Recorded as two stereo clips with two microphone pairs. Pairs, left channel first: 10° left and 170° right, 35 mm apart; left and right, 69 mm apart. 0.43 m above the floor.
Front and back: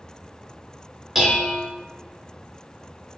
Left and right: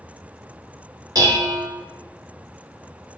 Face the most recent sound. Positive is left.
turn(degrees=-95)